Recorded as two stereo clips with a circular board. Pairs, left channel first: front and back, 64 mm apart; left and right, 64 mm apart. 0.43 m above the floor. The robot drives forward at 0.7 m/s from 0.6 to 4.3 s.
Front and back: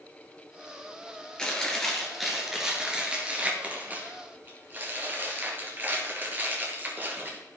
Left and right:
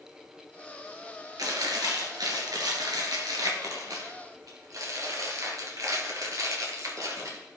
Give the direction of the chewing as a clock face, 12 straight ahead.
3 o'clock.